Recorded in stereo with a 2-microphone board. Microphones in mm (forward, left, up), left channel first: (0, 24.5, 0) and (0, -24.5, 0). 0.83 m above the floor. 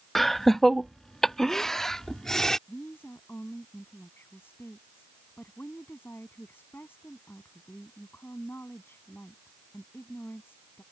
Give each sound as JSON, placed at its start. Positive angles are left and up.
{"t": 0.1, "sound": "laughter", "side_deg": 5}
{"t": 2.7, "sound": "a woman speaking", "side_deg": 50}